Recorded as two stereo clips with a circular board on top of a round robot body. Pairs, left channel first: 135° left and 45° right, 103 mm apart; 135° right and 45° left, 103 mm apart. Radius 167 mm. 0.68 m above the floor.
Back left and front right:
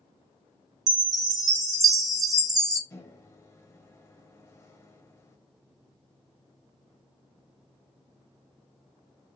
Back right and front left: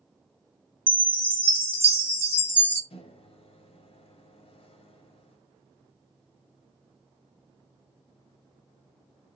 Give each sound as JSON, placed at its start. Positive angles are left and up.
{"t": 0.9, "sound": "a chime", "azimuth_deg": -75, "distance_m": 1.2}
{"t": 2.9, "sound": "a microwave", "azimuth_deg": -165, "distance_m": 0.8}